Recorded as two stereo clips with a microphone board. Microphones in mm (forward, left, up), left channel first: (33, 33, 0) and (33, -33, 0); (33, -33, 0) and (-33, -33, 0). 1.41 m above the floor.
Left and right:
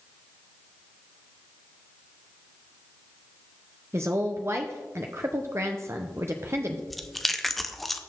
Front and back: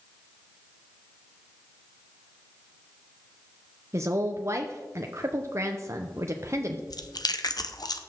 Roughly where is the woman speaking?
Behind right.